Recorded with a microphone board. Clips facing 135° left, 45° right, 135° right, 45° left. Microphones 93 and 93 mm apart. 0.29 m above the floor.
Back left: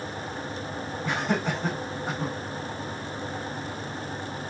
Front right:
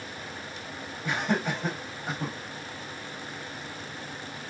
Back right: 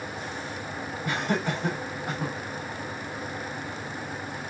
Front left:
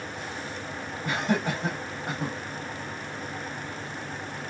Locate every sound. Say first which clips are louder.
1.0 s laughter: back left 1 dB, front left 1 dB; 35° left, 1.8 m